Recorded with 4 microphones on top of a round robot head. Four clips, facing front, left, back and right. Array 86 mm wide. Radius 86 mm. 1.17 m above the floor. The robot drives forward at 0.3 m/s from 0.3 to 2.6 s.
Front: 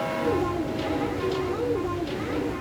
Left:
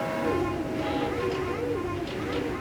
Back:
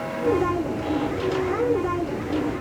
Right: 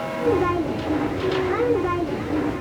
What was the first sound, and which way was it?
Only background noise.